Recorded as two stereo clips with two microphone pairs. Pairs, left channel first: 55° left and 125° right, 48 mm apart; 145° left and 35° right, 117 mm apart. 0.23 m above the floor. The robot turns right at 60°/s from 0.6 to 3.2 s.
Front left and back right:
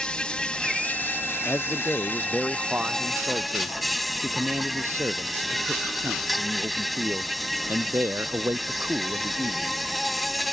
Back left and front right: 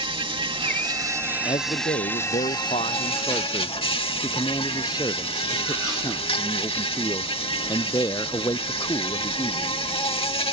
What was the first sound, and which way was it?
An insect, 10° right.